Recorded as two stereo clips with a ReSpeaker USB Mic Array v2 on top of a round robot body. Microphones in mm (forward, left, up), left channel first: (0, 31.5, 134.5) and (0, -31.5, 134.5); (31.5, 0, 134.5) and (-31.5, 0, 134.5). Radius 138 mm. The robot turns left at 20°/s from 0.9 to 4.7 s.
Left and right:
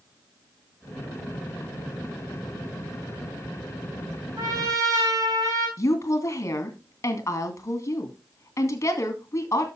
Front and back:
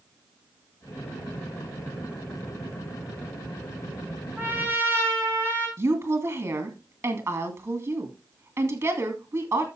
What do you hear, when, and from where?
4.4 s a trumpet: 115° right, 3.5 m; by 5.7 s 120° right, 3.5 m
5.8 s a woman speaking: 135° left, 3 m